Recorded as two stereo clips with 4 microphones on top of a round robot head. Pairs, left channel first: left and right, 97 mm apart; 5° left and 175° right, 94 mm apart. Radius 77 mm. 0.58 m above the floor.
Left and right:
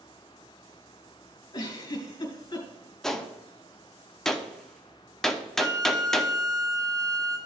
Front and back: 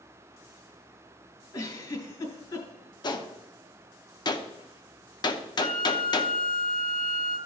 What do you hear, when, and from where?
1.5 s a giggle: 45° left, 3.5 m
3.0 s a gunshot: 5° left, 1.0 m
5.6 s a flute: 35° right, 1.0 m